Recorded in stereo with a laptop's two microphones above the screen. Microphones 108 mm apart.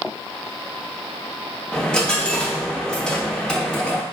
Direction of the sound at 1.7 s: 10° left (ahead or behind).